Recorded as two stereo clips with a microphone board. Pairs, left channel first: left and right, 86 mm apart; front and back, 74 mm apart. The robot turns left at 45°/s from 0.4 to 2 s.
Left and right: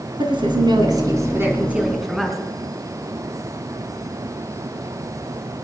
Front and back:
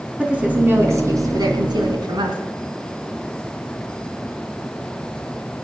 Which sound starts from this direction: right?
A woman speaking, at 0.2 s.